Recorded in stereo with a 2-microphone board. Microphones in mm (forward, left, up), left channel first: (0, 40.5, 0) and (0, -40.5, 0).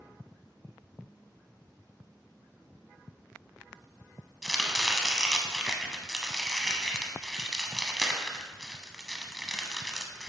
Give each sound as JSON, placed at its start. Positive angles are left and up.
{"t": 4.4, "sound": "chopping", "side_deg": -5, "distance_m": 0.8}